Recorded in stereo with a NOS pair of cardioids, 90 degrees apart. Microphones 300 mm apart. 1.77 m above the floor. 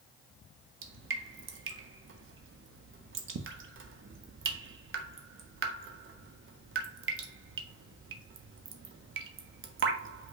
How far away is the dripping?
About 1.0 m.